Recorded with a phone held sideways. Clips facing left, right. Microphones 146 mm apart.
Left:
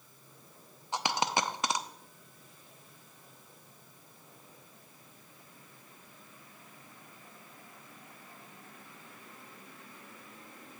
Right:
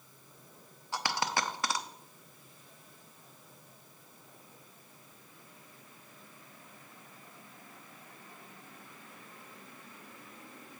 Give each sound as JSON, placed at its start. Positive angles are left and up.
{"t": 0.9, "sound": "a dropped coin", "side_deg": 20, "distance_m": 0.5}